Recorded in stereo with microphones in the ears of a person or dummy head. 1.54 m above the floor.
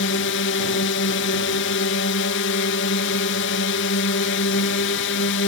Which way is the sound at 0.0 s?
60° left (ahead or behind).